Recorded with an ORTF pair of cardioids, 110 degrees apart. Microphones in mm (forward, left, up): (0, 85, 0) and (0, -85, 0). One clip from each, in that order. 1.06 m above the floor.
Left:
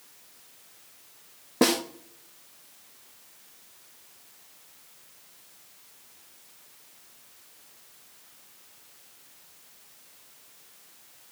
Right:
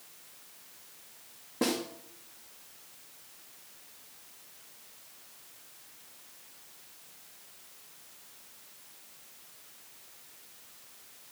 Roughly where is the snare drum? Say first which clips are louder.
Left 8 dB; ahead left.